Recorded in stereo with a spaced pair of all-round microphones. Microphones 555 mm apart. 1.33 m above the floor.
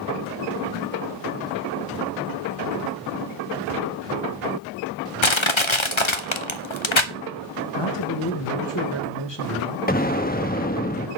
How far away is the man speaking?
About 1.9 m.